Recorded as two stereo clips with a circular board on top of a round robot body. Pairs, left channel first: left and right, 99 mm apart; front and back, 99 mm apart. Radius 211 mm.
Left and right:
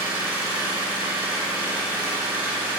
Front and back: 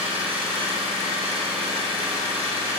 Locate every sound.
0.0 s an engine running: 170° right, 4 m